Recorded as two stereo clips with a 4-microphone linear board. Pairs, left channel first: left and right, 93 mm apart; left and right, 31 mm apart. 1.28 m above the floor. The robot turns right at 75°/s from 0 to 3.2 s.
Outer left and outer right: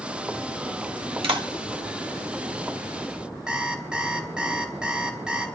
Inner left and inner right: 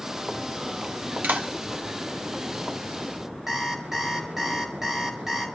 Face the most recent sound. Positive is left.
turn(degrees=-10)  # may be behind; listen again after turning